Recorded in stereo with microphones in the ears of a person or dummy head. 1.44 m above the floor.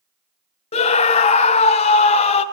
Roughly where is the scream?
Left.